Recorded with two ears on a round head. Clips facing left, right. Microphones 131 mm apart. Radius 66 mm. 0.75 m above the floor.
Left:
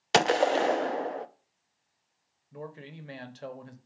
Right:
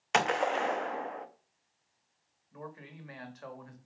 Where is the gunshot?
40° left (ahead or behind), 0.5 m.